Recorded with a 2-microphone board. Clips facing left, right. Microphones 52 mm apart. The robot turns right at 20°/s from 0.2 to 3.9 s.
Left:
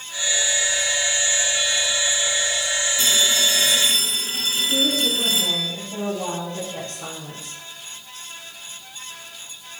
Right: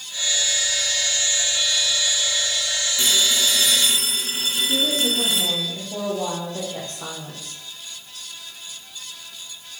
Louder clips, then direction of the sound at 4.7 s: Left 1 dB; 30° right (ahead or behind).